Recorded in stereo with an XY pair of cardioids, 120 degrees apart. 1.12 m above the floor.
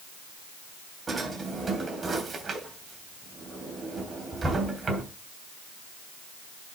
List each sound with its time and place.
1.1 s a drawer: 25° right, 3 m